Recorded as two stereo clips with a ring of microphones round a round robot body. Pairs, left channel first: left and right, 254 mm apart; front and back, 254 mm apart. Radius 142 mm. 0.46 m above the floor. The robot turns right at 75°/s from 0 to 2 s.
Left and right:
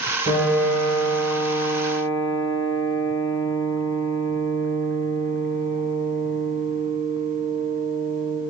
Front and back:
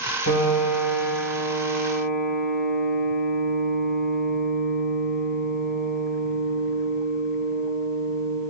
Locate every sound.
0.3 s a piano: 25° right, 2.5 m; by 8.4 s 105° left, 2.5 m